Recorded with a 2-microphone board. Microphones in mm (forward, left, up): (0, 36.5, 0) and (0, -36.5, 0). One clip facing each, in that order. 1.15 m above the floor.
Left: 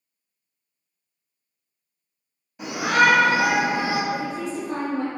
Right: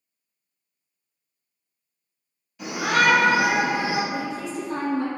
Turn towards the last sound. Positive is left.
turn(degrees=55)  # may be behind; listen again after turning